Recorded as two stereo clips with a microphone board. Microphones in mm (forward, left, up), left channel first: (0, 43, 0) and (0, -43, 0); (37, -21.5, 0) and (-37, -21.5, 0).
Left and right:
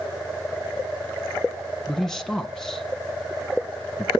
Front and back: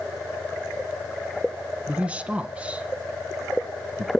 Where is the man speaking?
165° left, 1.1 m.